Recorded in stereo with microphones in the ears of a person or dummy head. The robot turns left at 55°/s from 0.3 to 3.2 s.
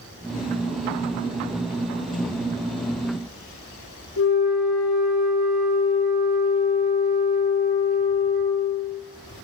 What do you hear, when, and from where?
4.2 s a flute: 75° left (ahead or behind), 4 m